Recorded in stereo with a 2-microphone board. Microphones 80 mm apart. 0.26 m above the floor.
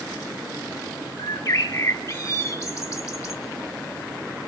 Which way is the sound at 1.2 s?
35° left (ahead or behind).